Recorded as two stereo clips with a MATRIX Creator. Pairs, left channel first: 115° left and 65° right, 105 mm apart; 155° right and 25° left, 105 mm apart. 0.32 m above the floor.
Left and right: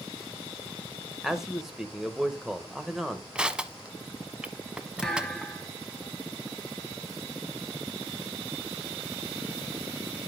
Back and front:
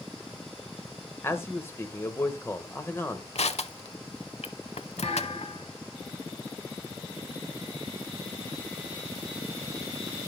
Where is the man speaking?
150° right, 0.9 m.